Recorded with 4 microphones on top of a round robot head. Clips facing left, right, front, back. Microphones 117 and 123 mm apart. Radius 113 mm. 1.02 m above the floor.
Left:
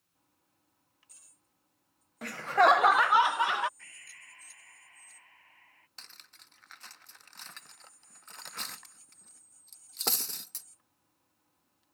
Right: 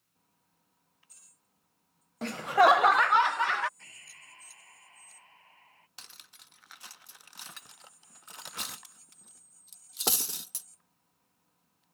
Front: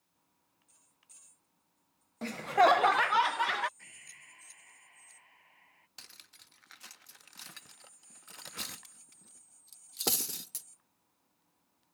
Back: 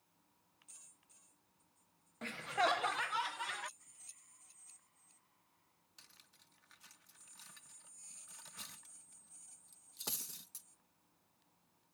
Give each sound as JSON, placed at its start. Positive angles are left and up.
{"t": 2.2, "sound": "laughter", "azimuth_deg": -40}
{"t": 3.8, "sound": "breathing", "azimuth_deg": -25}
{"t": 6.0, "sound": "cutlery clinking", "azimuth_deg": -10}